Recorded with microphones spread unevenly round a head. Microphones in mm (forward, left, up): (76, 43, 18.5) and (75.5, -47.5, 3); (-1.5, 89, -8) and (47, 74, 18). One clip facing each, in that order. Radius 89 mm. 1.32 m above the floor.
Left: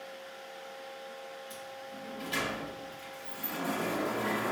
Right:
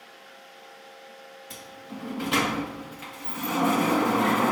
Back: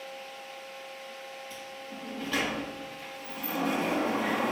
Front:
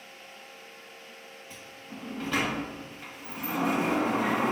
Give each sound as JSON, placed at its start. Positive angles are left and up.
{"t": 1.5, "sound": "a sliding door", "azimuth_deg": -85, "distance_m": 1.2}